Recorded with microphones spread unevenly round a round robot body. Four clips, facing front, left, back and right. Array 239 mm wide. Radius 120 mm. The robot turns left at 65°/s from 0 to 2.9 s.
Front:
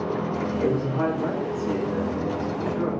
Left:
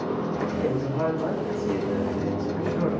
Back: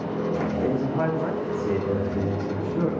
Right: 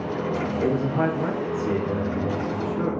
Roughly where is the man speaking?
Right.